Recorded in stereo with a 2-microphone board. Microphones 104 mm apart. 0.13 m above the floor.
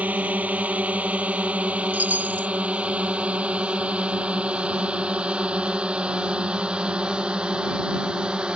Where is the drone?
15° right (ahead or behind); by 8.6 s 10° right (ahead or behind).